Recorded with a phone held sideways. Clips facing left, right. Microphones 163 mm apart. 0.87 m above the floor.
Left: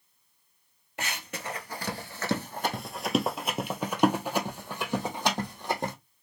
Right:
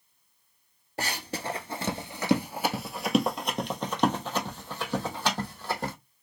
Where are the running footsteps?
35° right (ahead or behind), 1.0 m; by 5.9 s 20° left (ahead or behind), 2.5 m.